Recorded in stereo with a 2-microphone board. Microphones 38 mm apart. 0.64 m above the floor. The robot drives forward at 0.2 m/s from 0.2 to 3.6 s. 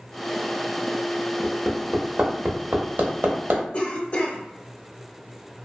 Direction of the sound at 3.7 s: 35° left (ahead or behind).